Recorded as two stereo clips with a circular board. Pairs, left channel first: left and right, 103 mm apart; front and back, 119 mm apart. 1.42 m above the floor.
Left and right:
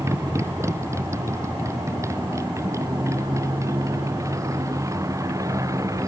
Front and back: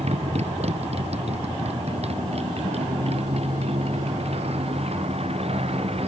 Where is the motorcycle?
155° right; by 6.1 s 150° right.